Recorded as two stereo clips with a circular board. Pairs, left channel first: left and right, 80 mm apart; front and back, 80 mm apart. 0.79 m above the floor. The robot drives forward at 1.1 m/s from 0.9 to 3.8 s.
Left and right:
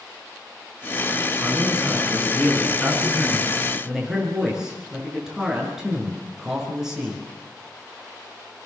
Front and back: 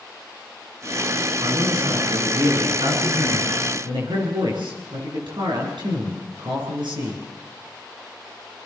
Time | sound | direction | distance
1.4 | a man speaking | 170° right | 8.5 m